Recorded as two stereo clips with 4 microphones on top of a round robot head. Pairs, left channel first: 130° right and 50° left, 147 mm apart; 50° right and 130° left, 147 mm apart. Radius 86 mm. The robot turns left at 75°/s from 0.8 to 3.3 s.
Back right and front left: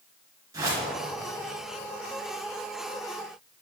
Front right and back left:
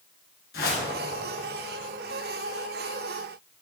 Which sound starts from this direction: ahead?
A whoosh, at 0.5 s.